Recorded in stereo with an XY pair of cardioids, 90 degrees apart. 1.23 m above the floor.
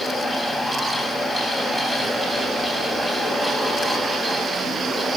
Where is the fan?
15° left, 8 m.